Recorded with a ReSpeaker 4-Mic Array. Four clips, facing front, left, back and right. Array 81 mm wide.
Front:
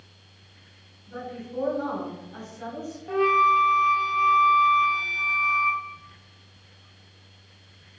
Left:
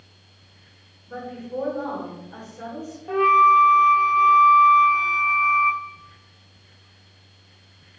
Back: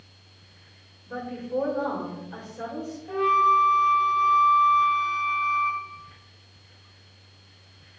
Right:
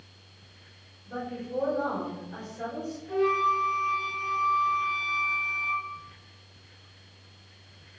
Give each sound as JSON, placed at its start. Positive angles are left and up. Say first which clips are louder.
{"t": 1.1, "sound": "a woman speaking", "louder": "left 1 dB, back 3 dB", "azimuth_deg": 170, "distance_m": 4.5}
{"t": 3.1, "sound": "a flute", "louder": "left 10 dB, even", "azimuth_deg": 75, "distance_m": 1.0}